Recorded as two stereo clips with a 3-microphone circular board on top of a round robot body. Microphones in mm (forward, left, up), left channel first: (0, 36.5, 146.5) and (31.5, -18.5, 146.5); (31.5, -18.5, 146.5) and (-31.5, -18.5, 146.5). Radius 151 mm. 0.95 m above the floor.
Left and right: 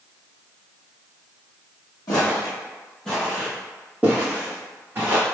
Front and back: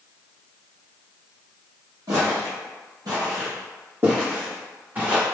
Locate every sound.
2.1 s footsteps: 145° left, 1.3 m; by 5.2 s 115° right, 2.5 m